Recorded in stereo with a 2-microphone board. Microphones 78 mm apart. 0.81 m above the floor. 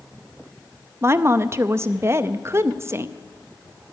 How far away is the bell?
I don't hear a bell.